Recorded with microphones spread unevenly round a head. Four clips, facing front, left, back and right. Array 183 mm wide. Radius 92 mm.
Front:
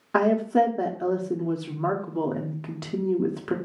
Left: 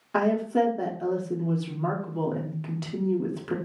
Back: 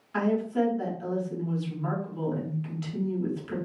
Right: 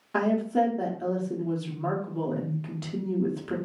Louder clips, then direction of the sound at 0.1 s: Left 1 dB, front 6 dB; 10° left.